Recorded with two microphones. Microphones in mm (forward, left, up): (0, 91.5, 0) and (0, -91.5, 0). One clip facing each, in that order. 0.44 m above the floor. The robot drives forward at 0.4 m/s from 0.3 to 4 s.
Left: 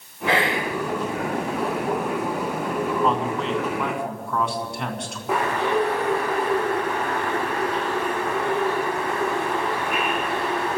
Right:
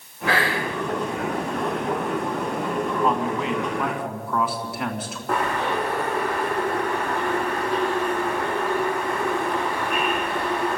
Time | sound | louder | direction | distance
0.3 | whispering | left 1 dB | 20° left (ahead or behind) | 1.2 m
3.0 | a man speaking | even | 5° right (ahead or behind) | 3 m
5.3 | a bird | left 2 dB | 5° left (ahead or behind) | 9 m